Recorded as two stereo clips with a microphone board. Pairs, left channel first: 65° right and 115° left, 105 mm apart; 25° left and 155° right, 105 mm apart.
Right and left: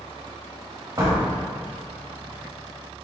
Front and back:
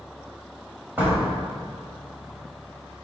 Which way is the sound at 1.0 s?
140° left.